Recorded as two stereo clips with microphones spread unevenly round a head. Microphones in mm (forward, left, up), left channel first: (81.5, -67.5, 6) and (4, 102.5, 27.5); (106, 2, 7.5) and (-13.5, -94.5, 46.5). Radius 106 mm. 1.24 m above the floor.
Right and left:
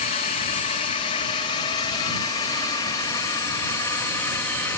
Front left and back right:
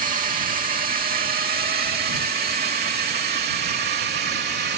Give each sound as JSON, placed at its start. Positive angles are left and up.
{"t": 0.0, "sound": "a drone", "azimuth_deg": -115}